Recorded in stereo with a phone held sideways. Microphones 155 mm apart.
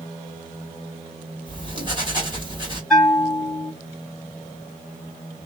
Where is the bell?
5° left (ahead or behind), 0.9 m.